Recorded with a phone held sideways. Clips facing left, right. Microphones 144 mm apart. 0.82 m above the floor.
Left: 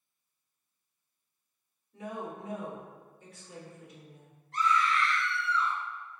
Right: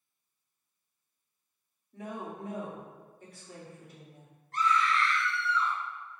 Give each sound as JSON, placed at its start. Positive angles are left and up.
{"t": 1.9, "sound": "a woman speaking", "side_deg": -50, "distance_m": 1.9}
{"t": 4.5, "sound": "a scream", "side_deg": -50, "distance_m": 1.5}